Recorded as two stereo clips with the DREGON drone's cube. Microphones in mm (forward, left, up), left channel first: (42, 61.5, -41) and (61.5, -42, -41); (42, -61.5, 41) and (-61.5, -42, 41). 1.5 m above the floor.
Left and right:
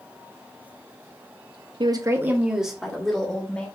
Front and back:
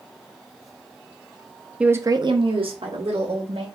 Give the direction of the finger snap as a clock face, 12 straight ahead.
No finger snap in this recording.